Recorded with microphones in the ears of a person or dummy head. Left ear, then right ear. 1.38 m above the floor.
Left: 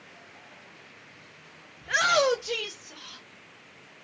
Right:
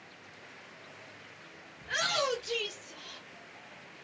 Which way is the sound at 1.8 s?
10° left (ahead or behind).